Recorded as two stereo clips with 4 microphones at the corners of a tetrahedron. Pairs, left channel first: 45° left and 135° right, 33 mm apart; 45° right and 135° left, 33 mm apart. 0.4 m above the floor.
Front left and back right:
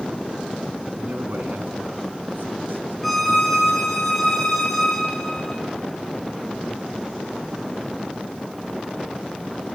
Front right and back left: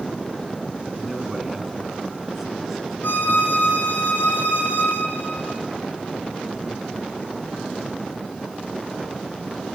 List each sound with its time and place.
1.0 s a man speaking: 145° right, 4.5 m
3.0 s a violin: 40° right, 6 m